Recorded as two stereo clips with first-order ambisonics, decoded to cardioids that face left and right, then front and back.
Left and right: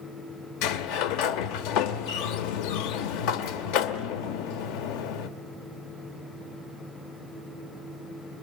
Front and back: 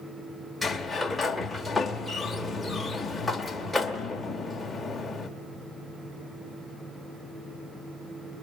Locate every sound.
0.6 s a sliding door: 85° left, 0.8 m